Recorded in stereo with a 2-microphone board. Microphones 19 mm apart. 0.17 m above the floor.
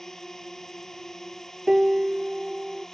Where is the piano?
30° right (ahead or behind).